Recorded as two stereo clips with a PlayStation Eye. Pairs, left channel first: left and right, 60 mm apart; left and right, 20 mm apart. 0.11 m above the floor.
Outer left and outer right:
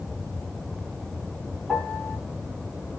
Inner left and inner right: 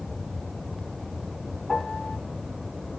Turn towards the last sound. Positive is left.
turn(degrees=5)  # may be behind; listen again after turning